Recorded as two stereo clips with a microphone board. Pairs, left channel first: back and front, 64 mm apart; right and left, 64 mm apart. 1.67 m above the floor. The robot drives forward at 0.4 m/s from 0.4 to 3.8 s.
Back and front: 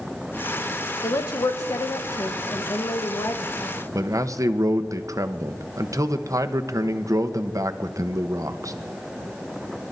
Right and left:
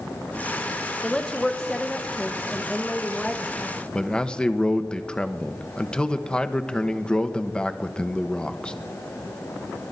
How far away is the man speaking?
About 1.0 m.